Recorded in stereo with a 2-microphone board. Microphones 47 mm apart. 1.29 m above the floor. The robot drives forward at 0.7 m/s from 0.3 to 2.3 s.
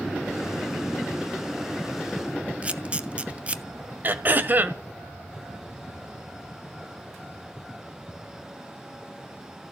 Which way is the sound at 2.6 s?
25° right (ahead or behind).